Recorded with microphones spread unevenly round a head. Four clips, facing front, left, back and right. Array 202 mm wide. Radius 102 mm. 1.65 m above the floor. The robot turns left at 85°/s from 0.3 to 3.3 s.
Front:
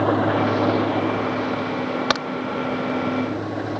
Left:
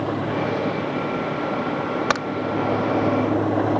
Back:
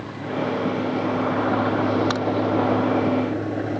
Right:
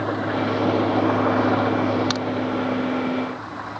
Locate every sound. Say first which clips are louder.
0.0 s an engine running: even, front 8 dB; 5° right; by 3.8 s 100° left
2.1 s a crack: left 3 dB, front 1 dB; 40° left; by 2.2 s 30° left